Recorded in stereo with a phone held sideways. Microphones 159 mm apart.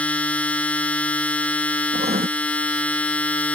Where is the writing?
90° right.